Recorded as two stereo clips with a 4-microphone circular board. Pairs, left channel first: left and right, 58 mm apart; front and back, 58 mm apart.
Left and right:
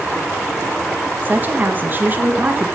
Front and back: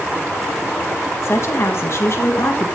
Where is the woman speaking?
35° right, 1.7 m.